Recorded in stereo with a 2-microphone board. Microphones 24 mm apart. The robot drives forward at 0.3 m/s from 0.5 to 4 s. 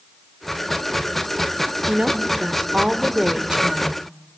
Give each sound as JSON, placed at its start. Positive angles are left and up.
{"t": 1.9, "sound": "a woman speaking", "side_deg": -45, "distance_m": 2.0}